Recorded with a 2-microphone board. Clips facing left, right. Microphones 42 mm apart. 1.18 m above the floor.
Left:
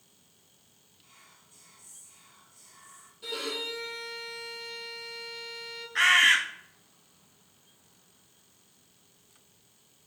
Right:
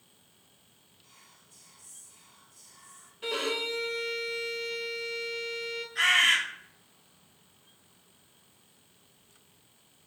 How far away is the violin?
About 0.7 m.